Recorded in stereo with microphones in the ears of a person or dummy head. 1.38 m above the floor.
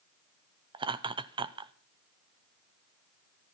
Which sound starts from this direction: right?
Laughter, at 0.7 s.